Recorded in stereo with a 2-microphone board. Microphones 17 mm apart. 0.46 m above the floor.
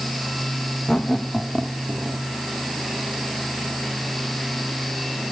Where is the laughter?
40° left (ahead or behind), 1.2 m; by 2.2 s 25° right (ahead or behind), 1.2 m.